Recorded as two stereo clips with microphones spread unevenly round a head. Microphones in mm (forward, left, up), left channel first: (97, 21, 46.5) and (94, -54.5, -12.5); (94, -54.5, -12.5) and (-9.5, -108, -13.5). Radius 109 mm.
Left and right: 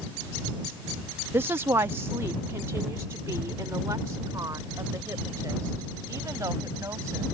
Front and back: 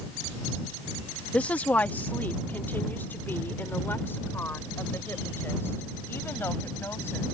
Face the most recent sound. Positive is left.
turn(degrees=-40)